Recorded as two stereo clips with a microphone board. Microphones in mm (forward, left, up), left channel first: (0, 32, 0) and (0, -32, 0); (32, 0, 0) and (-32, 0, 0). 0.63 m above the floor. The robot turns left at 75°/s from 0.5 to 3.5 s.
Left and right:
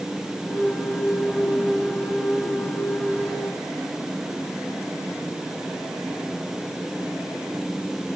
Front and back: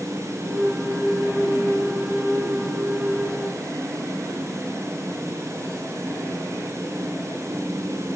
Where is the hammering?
No hammering in this recording.